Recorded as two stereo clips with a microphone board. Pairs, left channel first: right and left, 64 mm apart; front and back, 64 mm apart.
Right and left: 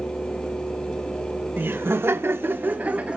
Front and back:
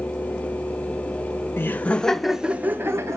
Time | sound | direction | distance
1.6 | laughter | 45° left | 0.9 m